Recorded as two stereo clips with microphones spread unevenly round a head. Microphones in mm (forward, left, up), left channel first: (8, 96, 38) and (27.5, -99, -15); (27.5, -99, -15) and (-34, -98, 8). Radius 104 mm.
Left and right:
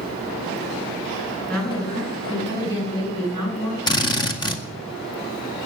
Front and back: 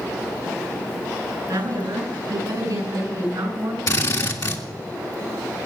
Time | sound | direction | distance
1.5 | a woman speaking | 175° left | 9 m
3.9 | a drill | 20° left | 1.9 m